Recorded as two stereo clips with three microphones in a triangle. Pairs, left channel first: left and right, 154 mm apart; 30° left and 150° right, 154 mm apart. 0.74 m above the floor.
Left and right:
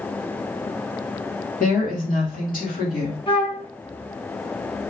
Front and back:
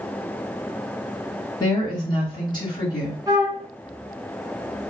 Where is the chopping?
I don't hear chopping.